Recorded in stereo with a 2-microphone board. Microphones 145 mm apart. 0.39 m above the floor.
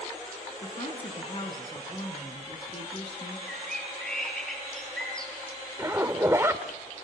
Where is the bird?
5° left (ahead or behind), 9 m.